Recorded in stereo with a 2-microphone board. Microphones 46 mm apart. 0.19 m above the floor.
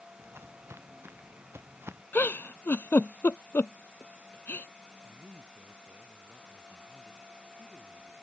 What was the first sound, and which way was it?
Footsteps, 70° right (ahead or behind).